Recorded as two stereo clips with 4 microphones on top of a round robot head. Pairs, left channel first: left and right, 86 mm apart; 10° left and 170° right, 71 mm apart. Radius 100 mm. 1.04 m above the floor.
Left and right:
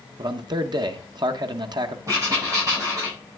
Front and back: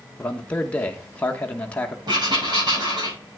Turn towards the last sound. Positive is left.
turn(degrees=-145)